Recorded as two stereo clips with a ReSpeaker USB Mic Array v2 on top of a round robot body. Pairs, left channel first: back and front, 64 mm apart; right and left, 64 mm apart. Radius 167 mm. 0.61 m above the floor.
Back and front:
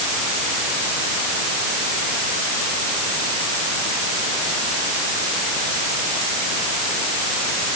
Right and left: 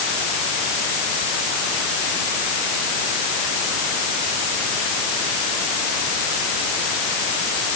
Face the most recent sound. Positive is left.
No sound to turn to.